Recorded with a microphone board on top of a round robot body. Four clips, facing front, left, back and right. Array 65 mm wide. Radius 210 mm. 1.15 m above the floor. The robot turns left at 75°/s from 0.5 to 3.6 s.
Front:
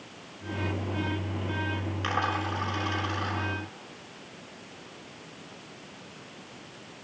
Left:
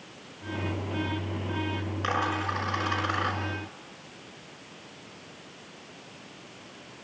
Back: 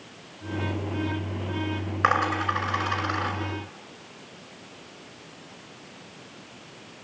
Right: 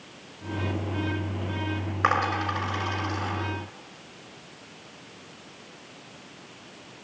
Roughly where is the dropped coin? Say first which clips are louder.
Right 5 dB, back 7 dB; behind right.